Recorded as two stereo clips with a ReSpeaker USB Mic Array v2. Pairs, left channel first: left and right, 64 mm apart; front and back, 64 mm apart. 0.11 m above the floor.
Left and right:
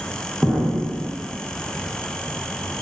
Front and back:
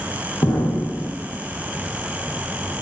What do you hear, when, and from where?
0.4 s an explosion: 5° right, 8.5 m